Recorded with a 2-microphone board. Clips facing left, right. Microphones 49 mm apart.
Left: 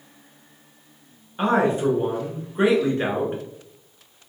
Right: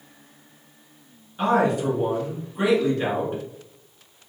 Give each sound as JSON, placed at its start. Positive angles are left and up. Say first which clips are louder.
{"t": 1.4, "sound": "a man speaking", "louder": "left 1 dB", "side_deg": 25, "distance_m": 1.2}